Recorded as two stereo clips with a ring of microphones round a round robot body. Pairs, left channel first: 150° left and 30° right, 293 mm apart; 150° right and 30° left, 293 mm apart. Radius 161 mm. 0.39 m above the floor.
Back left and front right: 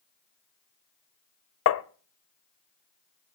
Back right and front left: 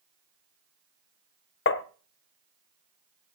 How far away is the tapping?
About 0.7 m.